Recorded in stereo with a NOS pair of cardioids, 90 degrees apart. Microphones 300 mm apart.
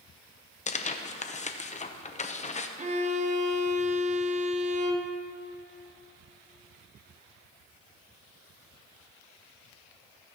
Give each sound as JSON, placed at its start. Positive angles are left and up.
{"t": 0.7, "sound": "tearing paper", "azimuth_deg": 25, "distance_m": 0.8}
{"t": 2.8, "sound": "a violin", "azimuth_deg": -25, "distance_m": 1.0}